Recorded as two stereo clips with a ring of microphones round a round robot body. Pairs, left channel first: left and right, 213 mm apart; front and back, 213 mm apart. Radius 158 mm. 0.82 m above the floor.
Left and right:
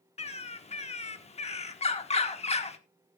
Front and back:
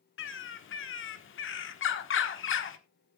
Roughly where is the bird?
Ahead left.